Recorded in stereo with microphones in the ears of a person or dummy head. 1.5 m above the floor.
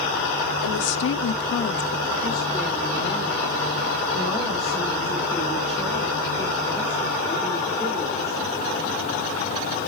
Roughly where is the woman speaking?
Left.